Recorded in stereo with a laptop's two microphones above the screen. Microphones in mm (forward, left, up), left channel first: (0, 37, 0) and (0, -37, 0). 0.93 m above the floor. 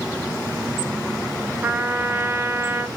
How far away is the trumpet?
About 0.5 m.